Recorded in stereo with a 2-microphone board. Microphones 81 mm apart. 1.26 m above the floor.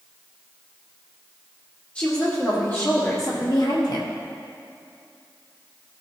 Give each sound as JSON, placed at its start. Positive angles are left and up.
{"t": 1.9, "sound": "a woman speaking", "side_deg": 20, "distance_m": 2.5}